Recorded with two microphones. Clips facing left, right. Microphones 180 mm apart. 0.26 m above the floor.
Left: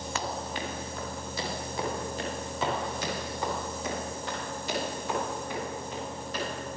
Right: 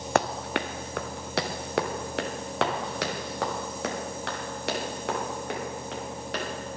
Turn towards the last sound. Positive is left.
turn(degrees=-80)